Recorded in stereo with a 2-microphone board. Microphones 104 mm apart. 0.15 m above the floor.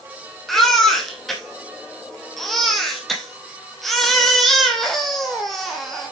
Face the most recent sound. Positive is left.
turn(degrees=0)  # may be behind; listen again after turning